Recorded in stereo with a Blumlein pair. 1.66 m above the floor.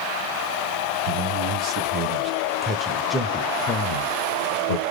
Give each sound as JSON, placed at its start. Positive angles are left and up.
{"t": 1.1, "sound": "a man speaking", "azimuth_deg": -50, "distance_m": 1.6}